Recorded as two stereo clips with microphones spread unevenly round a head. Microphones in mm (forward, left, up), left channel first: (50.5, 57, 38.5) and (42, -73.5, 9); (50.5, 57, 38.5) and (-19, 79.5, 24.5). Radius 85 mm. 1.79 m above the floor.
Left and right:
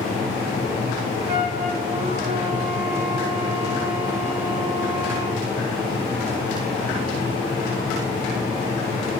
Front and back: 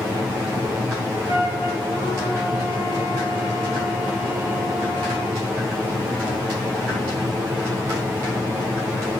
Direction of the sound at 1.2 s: 55° right.